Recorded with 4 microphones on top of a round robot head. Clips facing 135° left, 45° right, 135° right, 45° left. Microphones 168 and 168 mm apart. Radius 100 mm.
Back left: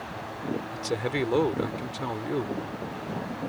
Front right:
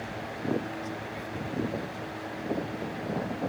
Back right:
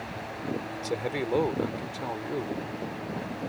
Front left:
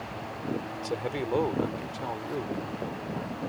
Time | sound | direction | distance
0.7 | a man speaking | 140° left | ?